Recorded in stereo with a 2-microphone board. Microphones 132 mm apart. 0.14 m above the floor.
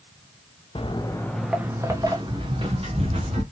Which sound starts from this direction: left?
Footsteps, at 0.8 s.